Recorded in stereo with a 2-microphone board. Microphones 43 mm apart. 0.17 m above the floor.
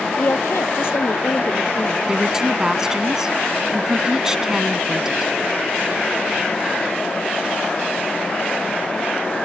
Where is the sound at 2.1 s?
15° right (ahead or behind).